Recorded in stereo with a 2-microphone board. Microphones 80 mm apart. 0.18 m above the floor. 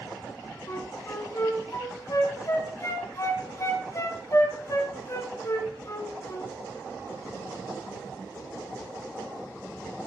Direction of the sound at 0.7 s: 40° left (ahead or behind).